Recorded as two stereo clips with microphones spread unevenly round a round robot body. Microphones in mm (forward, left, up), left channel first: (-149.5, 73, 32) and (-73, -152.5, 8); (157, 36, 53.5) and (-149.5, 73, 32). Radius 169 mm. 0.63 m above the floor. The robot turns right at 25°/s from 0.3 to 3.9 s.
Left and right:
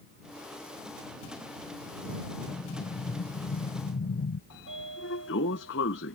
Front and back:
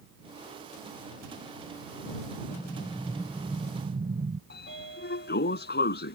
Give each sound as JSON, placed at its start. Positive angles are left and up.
{"t": 2.5, "sound": "an explosion", "azimuth_deg": 65}
{"t": 4.5, "sound": "a sliding door", "azimuth_deg": 50}